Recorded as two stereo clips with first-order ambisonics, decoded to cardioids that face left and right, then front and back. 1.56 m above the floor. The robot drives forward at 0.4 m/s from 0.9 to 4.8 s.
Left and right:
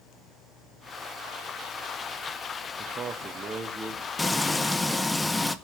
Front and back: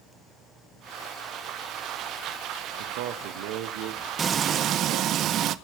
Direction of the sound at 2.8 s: 160° right.